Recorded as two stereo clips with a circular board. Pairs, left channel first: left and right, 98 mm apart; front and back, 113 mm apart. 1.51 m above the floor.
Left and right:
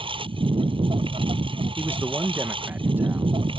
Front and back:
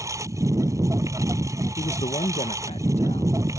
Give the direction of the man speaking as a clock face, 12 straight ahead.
1 o'clock.